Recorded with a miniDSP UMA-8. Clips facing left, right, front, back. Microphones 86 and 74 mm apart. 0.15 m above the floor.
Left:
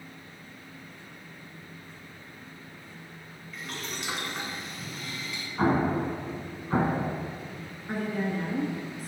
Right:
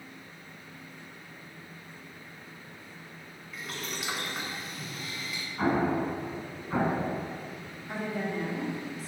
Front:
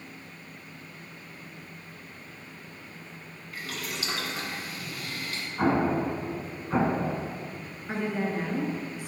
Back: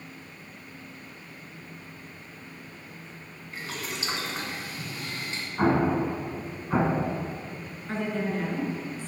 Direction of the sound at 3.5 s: 175° right.